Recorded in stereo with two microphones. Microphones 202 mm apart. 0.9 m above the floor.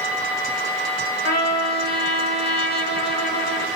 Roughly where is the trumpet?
Left.